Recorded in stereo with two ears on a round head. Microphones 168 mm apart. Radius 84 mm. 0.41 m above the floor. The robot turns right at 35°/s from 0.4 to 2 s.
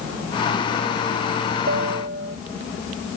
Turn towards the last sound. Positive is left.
turn(degrees=-50)  # may be behind; listen again after turning